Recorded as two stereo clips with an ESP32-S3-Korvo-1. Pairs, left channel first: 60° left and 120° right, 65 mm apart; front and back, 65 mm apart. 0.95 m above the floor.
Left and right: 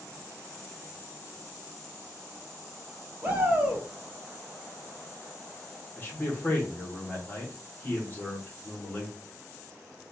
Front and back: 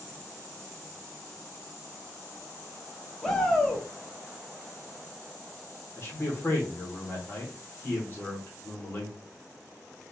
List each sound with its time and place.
3.2 s a shout: 70° right, 0.9 m
6.0 s a man speaking: 25° left, 1.0 m